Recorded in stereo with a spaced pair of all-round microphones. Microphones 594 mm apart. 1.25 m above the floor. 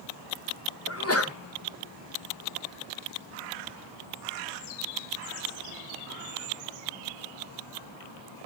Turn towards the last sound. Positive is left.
turn(degrees=25)  # may be behind; listen again after turning